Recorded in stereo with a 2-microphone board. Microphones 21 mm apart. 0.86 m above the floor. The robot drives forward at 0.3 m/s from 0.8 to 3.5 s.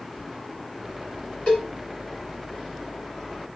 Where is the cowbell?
55° left (ahead or behind), 1.8 m.